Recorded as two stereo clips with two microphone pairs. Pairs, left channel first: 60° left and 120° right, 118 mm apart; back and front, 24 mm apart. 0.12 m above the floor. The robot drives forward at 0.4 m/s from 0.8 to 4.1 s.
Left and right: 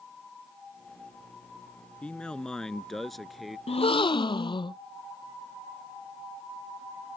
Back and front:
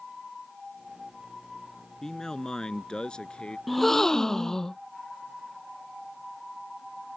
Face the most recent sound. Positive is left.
turn(degrees=110)